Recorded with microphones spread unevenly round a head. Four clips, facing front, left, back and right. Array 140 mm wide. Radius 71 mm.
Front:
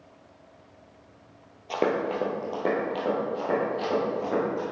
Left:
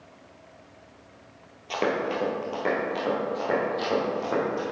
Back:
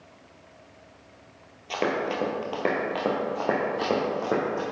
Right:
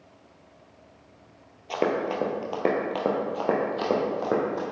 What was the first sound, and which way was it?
Running footsteps, 30° right.